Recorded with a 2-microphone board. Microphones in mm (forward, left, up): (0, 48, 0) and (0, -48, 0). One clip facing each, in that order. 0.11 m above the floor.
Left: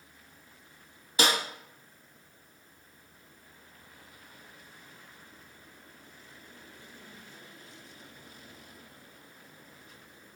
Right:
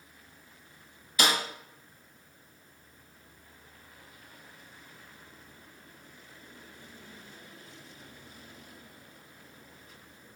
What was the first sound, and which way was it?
A snare drum, 35° left (ahead or behind).